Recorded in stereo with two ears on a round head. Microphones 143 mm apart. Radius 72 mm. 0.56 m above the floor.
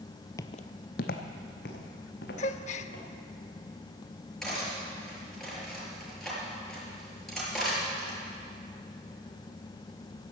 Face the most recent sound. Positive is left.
turn(degrees=0)  # may be behind; listen again after turning